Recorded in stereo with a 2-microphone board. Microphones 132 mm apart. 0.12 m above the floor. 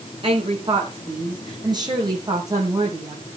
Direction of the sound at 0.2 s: 45° right (ahead or behind).